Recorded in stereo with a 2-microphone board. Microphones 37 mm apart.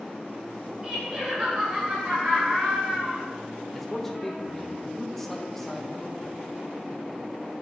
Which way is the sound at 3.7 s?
5° left (ahead or behind).